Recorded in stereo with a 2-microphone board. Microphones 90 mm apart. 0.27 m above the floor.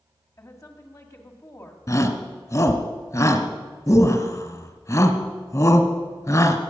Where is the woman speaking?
35° left (ahead or behind), 2.0 m.